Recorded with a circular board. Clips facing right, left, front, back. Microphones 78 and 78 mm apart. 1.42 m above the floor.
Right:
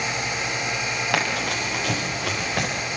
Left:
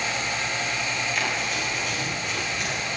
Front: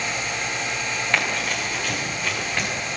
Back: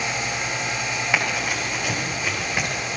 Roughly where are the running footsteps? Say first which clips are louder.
Right 3 dB, even; right.